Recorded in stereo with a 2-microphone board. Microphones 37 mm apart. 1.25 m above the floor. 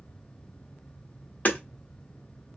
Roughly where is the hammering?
Left.